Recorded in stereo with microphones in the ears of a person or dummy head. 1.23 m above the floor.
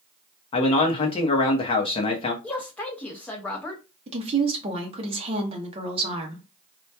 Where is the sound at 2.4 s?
5° left (ahead or behind), 0.6 m.